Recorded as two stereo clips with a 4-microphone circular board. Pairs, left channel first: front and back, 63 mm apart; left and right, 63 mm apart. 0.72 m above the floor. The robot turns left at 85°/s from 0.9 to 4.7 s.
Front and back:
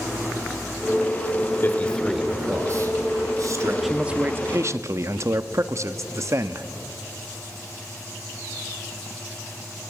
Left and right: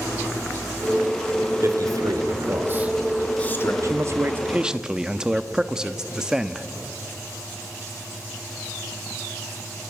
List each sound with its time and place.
1.6 s a man speaking: 50° right, 2.5 m; by 3.7 s 130° left, 2.5 m
3.8 s a man speaking: 95° right, 0.8 m; by 6.7 s 165° right, 0.8 m